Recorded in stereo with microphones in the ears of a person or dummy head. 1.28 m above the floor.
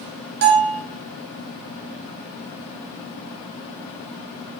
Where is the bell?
50° right (ahead or behind), 0.9 m.